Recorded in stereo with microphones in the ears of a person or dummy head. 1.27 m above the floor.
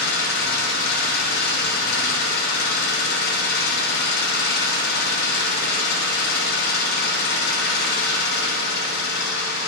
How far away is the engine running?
About 2 m.